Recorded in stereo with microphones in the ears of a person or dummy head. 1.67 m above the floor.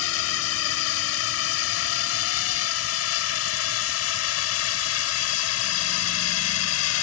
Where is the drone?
85° left; by 7.0 s 80° left.